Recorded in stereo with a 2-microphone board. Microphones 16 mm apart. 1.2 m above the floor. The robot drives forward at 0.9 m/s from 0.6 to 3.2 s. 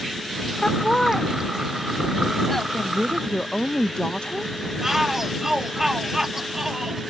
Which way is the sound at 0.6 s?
30° left (ahead or behind).